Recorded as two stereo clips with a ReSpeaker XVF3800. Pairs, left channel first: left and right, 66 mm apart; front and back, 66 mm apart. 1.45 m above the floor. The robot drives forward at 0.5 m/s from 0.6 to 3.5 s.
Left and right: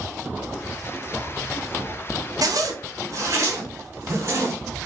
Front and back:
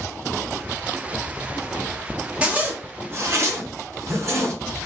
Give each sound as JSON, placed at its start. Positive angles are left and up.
{"t": 2.4, "sound": "a zipper", "azimuth_deg": -105, "distance_m": 0.8}